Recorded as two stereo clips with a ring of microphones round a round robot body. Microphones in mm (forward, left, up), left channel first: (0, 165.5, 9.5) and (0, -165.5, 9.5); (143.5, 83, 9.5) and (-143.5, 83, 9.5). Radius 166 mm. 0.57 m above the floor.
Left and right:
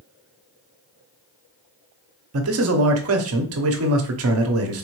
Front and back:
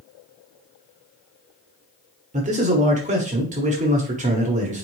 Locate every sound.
2.3 s a man speaking: 120° right, 0.9 m